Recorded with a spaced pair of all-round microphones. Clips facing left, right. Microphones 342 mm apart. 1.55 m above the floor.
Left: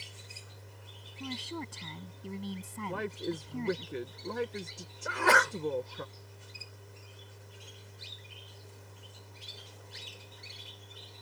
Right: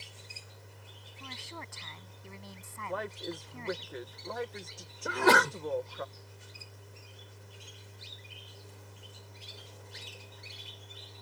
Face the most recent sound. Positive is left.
turn(degrees=-50)  # may be behind; listen again after turning